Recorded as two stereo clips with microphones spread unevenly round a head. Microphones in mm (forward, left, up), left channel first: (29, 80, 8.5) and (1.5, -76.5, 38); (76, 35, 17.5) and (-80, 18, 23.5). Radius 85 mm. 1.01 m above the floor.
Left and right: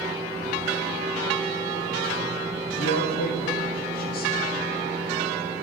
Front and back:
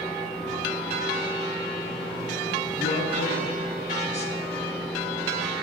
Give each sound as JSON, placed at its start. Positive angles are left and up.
{"t": 2.8, "sound": "a man speaking", "azimuth_deg": 55, "distance_m": 1.3}